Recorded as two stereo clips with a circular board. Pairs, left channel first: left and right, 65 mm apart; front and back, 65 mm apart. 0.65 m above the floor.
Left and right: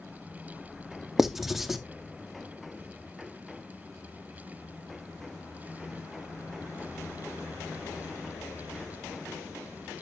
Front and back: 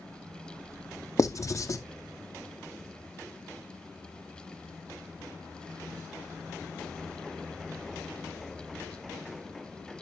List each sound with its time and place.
1.2 s writing: 5° right, 0.7 m